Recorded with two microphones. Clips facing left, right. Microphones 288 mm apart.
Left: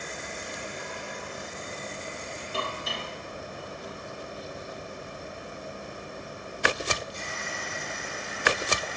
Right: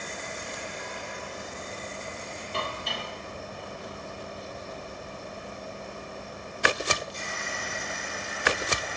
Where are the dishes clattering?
5° left (ahead or behind), 7 m.